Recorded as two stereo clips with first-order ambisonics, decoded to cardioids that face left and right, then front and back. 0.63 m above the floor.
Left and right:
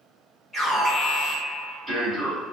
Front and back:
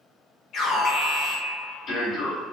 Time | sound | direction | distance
0.5 | an alarm | straight ahead | 1.7 m